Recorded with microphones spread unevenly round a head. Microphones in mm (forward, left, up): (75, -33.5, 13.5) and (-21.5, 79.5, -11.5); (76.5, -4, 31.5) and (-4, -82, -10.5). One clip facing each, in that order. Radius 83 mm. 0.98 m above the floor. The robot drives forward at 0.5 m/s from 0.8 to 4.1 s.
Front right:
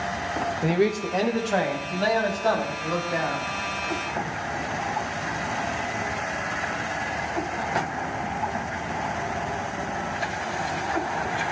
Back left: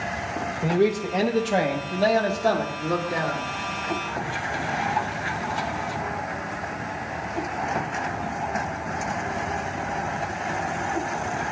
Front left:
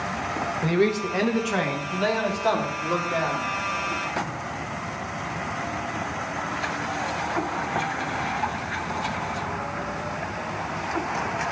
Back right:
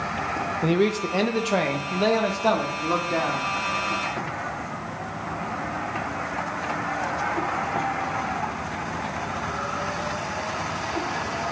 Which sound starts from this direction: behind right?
A man speaking, at 0.6 s.